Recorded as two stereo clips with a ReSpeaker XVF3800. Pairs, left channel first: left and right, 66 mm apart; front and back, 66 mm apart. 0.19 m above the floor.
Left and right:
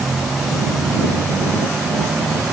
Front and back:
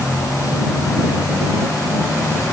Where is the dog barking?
I don't hear a dog barking.